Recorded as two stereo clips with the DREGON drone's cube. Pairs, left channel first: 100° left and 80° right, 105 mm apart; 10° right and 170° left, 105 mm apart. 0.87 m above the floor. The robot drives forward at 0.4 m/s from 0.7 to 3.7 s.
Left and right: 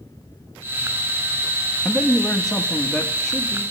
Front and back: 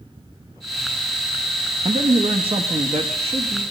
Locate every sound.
1.9 s a man speaking: 175° right, 0.7 m